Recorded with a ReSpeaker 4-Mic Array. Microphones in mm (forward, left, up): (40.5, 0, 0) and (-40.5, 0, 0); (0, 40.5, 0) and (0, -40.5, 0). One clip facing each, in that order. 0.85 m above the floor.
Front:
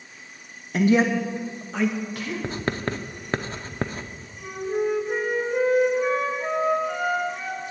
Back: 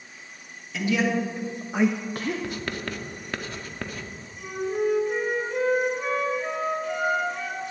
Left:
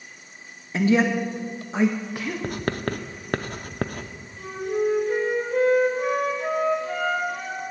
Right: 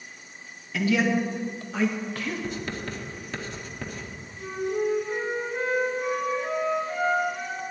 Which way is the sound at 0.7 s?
35° left.